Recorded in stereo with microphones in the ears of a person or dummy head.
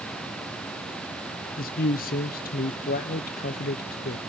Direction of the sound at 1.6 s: 40° left (ahead or behind).